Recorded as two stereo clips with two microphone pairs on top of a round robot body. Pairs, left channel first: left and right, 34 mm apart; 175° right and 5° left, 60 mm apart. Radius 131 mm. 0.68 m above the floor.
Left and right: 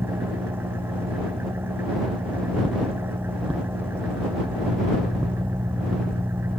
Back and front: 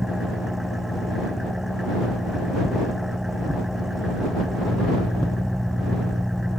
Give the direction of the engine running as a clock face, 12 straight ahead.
3 o'clock.